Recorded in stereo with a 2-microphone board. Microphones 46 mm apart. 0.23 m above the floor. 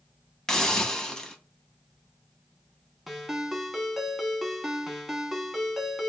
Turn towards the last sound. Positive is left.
turn(degrees=-5)  # may be behind; listen again after turning